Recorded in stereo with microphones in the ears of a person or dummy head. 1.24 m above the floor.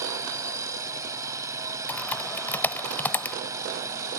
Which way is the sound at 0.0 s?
15° right (ahead or behind).